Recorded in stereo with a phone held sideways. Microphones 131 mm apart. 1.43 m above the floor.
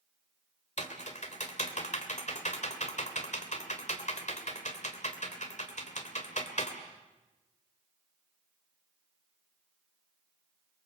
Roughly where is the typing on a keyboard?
Left.